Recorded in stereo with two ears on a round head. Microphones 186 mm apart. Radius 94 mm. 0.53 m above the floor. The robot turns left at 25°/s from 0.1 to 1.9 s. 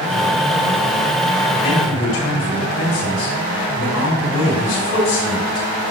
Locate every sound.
1.6 s a man speaking: 80° left, 4 m; by 5.7 s 75° left (ahead or behind), 4 m